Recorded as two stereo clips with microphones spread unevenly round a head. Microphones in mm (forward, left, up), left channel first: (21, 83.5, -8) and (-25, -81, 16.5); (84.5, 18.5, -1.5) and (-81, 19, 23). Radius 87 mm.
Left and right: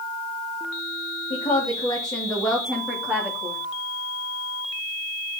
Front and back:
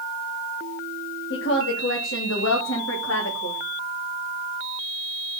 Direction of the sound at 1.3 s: 20° left.